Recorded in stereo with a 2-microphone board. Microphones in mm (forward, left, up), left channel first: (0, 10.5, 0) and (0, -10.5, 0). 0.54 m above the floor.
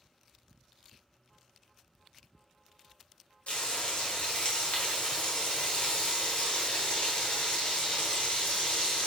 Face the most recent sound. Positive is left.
turn(degrees=70)  # may be behind; listen again after turning